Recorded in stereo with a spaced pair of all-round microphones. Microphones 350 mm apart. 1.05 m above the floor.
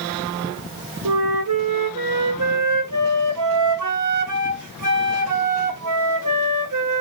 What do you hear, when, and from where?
1.1 s a flute: 60° right (ahead or behind), 0.6 m